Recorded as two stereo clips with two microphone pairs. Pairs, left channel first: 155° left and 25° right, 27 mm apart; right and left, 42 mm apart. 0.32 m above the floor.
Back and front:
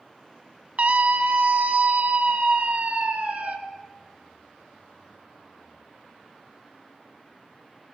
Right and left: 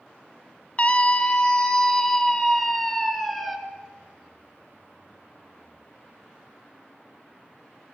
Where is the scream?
35° right, 1.9 m; by 3.6 s straight ahead, 3.5 m.